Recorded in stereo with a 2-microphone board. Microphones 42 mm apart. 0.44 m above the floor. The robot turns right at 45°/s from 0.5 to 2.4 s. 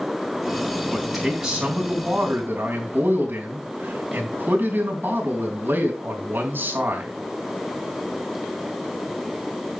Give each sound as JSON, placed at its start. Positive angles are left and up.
{"t": 0.9, "sound": "a man speaking", "azimuth_deg": 170, "distance_m": 3.5}